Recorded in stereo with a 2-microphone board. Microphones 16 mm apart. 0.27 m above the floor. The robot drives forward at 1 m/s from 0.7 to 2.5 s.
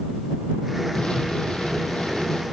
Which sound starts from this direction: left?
An explosion, at 0.9 s.